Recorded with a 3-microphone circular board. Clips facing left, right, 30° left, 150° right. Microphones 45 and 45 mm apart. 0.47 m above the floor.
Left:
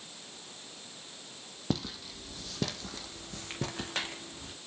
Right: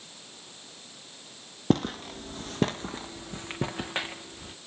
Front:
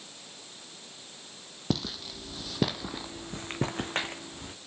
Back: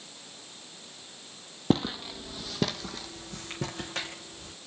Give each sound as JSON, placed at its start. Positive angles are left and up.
{"t": 1.7, "sound": "footsteps", "azimuth_deg": -100, "distance_m": 0.7}